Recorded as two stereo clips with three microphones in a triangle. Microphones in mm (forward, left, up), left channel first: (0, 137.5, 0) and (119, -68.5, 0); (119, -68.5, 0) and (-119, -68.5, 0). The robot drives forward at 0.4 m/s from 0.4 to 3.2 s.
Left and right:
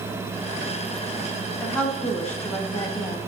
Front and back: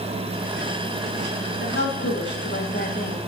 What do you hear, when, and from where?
1.6 s a woman speaking: 30° left, 1.5 m; by 3.2 s 50° left, 1.0 m